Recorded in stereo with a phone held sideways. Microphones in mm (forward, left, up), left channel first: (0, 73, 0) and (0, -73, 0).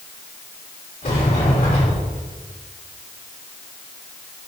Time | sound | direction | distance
1.0 | a sliding door | 80° left | 3.5 m